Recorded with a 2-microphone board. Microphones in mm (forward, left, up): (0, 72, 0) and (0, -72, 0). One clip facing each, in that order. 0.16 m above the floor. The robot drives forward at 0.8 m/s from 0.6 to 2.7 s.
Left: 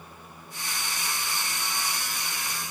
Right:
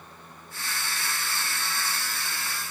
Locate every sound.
Only background noise.